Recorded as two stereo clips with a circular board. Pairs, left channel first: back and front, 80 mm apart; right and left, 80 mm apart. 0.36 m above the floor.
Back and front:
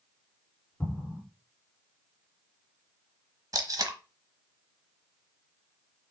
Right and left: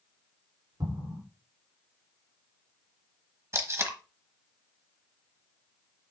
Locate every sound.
0.8 s an explosion: 115° left, 3 m
3.5 s tape being pulled: 35° left, 1.0 m